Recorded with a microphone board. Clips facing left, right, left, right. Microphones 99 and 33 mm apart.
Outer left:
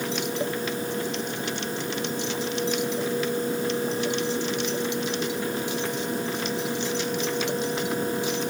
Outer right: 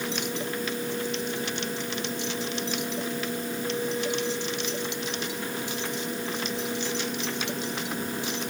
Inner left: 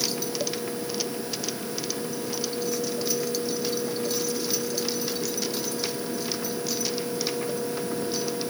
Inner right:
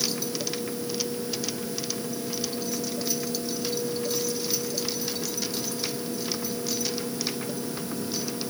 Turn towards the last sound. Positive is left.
No sound to turn to.